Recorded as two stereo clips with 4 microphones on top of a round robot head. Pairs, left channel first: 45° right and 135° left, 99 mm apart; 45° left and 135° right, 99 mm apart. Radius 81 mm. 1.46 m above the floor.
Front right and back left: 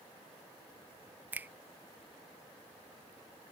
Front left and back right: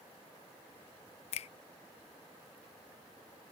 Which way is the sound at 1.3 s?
65° left.